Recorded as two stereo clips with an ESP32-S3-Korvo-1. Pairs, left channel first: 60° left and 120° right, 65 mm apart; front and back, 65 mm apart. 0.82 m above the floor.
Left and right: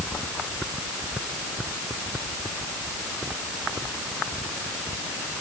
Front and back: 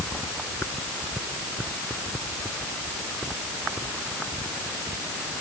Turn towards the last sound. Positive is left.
No sound to turn to.